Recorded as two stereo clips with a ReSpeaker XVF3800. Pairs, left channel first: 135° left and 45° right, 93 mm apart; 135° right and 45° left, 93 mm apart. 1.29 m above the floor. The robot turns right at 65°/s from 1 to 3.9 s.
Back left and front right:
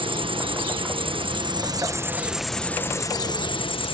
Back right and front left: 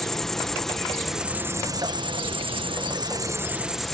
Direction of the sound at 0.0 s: 50° right.